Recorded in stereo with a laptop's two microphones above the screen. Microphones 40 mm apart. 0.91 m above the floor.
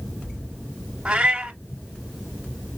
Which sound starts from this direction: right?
A cat meowing, at 1.1 s.